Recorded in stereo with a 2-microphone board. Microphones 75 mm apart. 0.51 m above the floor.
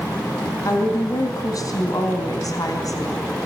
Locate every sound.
0.6 s a woman speaking: 55° left (ahead or behind), 3.5 m